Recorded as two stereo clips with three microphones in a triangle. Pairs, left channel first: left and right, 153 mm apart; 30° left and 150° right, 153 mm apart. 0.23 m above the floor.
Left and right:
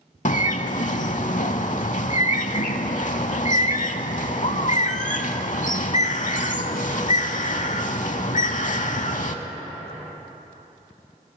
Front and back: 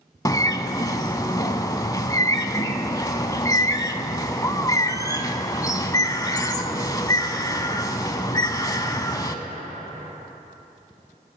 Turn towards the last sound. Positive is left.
turn(degrees=90)